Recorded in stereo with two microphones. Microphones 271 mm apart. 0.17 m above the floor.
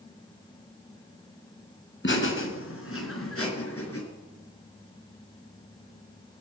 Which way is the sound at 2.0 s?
45° left (ahead or behind).